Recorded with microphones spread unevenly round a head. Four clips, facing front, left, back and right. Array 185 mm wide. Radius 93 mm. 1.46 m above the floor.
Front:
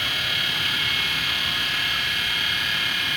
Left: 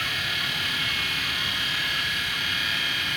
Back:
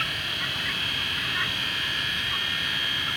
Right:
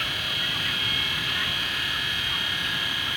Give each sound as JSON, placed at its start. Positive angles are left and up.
{"t": 0.0, "sound": "a machine running", "azimuth_deg": -20, "distance_m": 1.5}